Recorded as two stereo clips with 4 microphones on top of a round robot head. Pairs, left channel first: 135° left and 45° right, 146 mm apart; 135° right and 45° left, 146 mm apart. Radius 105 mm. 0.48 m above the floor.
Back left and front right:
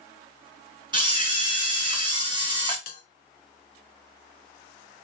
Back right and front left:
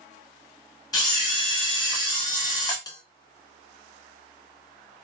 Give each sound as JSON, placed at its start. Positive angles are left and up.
{"t": 0.9, "sound": "a camera shutter", "azimuth_deg": -85, "distance_m": 1.5}
{"t": 2.9, "sound": "a bell", "azimuth_deg": 160, "distance_m": 0.6}